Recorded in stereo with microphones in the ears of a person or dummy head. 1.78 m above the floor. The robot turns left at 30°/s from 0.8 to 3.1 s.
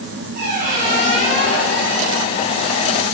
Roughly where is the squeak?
Ahead right.